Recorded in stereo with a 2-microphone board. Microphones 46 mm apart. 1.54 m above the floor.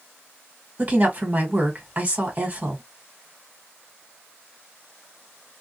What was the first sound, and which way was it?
A woman speaking, 35° right (ahead or behind).